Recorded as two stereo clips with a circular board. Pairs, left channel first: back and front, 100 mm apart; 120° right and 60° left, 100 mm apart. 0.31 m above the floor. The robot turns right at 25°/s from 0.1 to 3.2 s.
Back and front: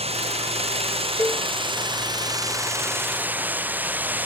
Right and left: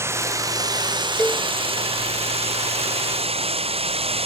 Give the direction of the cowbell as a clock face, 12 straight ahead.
6 o'clock.